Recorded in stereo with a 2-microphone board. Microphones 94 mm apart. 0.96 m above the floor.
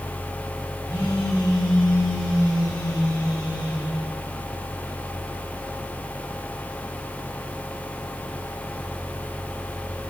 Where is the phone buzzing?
45° left (ahead or behind), 4 m.